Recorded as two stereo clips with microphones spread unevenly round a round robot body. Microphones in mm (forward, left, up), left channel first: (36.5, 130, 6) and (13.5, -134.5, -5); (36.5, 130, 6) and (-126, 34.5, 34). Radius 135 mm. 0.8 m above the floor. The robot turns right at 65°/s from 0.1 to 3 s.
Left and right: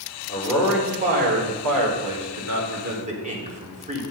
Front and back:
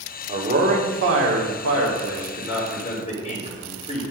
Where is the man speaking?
150° left, 2.5 m; by 4.0 s 35° right, 2.5 m.